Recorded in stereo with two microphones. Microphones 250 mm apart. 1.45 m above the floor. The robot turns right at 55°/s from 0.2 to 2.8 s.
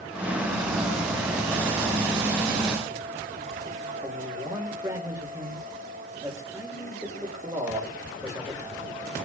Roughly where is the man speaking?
Centre.